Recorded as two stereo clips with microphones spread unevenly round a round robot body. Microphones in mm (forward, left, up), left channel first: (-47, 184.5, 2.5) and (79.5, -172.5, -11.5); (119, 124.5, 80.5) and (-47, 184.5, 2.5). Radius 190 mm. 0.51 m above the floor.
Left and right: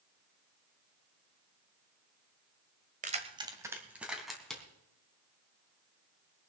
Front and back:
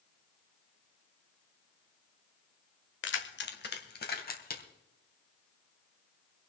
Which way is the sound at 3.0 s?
Straight ahead.